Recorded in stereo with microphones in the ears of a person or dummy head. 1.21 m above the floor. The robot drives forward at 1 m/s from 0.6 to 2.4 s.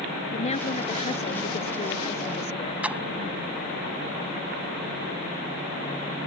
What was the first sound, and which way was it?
A woman speaking, 40° left (ahead or behind).